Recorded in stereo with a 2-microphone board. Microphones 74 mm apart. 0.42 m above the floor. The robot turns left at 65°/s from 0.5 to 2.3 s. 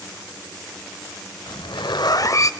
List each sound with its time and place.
1.5 s a zipper: 100° left, 0.5 m; by 2.5 s 45° left, 0.5 m